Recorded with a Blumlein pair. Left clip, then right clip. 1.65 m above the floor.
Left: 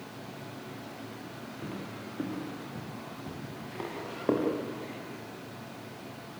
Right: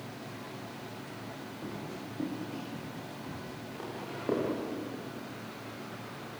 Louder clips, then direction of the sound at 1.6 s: Left 1 dB; 5° left.